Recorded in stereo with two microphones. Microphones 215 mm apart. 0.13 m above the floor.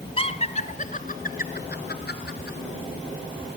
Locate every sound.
0.2 s laughter: 30° left (ahead or behind), 1.4 m; by 2.6 s 55° left (ahead or behind), 2 m